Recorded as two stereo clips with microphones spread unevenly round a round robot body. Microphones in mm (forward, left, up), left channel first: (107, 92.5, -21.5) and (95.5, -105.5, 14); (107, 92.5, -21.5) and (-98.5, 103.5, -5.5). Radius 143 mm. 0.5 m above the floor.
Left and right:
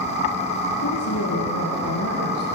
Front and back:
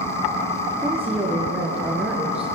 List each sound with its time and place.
0.8 s a woman speaking: 95° left, 6 m